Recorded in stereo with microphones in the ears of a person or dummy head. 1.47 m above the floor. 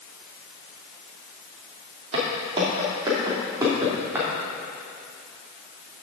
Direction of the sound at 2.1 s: 30° right (ahead or behind).